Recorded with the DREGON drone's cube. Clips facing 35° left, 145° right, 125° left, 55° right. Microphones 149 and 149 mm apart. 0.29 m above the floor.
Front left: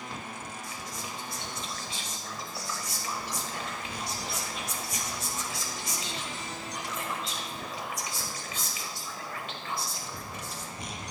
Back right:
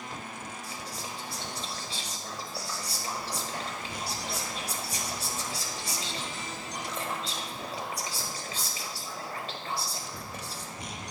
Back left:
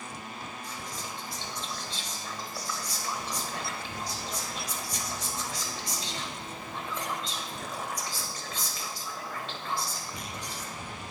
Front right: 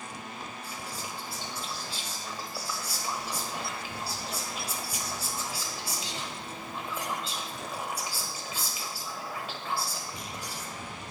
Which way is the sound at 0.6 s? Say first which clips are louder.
Even, even; 130° right.